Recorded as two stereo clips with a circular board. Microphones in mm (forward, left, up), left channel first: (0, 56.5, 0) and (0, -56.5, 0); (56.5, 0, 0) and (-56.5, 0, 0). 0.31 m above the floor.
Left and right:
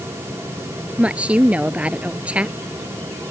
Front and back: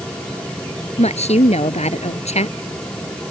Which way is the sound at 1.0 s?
10° right.